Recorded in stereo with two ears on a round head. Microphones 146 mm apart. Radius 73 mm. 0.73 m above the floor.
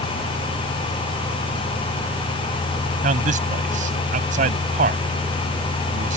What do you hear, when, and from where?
3.0 s a man speaking: 50° right (ahead or behind)